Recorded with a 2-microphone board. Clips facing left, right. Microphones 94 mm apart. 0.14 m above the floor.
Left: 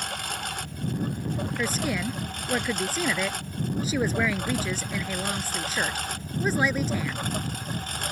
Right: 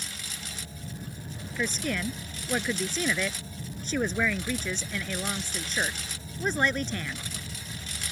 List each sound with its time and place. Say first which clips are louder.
0.0 s a lawn mower: left 10 dB; 60° left (ahead or behind); by 8.1 s 55° left (ahead or behind)
1.6 s a woman speaking: right 1 dB; 5° left (ahead or behind)